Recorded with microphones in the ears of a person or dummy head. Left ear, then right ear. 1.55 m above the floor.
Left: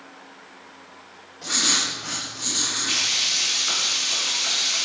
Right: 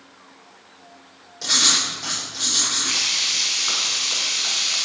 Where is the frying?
15° right (ahead or behind), 4.5 m.